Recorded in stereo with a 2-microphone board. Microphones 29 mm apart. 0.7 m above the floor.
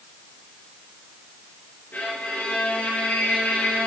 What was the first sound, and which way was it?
A violin, 80° left.